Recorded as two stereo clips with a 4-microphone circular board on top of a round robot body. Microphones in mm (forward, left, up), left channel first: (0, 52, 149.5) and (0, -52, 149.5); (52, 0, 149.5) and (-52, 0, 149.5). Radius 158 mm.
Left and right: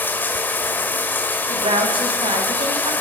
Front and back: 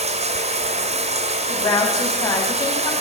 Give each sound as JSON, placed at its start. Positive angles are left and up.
{"t": 0.0, "sound": "running water", "azimuth_deg": 165, "distance_m": 1.4}
{"t": 1.5, "sound": "a woman speaking", "azimuth_deg": -55, "distance_m": 7.0}